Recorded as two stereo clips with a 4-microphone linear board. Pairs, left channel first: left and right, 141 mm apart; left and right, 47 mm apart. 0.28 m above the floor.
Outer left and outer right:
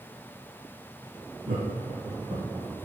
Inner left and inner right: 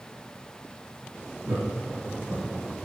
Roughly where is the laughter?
Right.